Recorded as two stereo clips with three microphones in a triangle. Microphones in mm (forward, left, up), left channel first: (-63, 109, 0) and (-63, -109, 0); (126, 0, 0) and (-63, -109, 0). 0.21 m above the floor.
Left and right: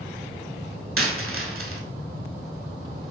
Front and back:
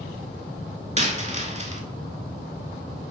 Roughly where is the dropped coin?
Right.